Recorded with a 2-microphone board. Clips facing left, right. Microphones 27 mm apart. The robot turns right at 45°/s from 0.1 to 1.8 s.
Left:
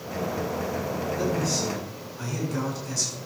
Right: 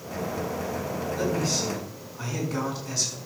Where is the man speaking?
50° right (ahead or behind), 6.5 m; by 3.1 s 20° right (ahead or behind), 6.5 m.